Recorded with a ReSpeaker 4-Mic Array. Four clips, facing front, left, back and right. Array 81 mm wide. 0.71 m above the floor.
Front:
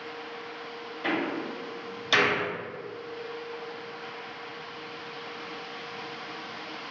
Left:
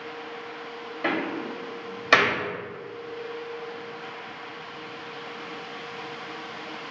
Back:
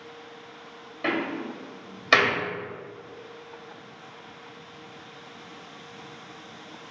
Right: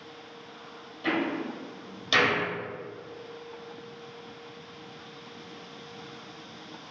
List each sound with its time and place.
1.0 s a door slam: 130° left, 2.5 m